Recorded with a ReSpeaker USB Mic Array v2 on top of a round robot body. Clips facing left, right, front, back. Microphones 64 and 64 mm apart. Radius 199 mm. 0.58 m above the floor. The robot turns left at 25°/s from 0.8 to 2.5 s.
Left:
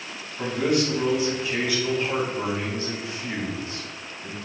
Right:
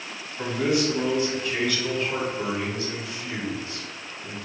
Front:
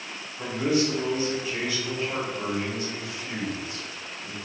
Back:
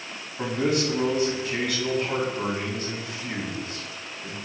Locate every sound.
0.4 s a man speaking: straight behind, 1.5 m; by 4.3 s 140° left, 1.5 m